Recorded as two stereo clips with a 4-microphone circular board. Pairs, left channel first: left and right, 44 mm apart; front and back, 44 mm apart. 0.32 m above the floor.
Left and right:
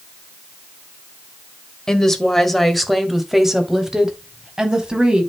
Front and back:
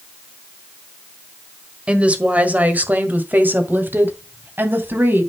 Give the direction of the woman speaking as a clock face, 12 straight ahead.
7 o'clock.